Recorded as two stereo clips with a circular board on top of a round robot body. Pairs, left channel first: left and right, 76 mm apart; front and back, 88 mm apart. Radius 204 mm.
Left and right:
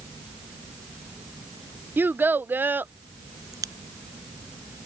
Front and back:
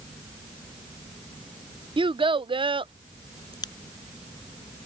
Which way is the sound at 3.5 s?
45° right.